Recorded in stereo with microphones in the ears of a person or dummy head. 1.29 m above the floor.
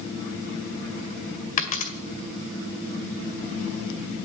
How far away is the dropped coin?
About 1.8 m.